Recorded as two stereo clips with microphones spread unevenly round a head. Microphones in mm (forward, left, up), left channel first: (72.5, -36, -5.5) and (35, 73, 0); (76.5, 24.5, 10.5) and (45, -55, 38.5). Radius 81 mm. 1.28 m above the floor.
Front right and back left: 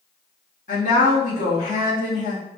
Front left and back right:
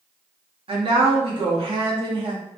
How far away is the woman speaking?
About 1.4 m.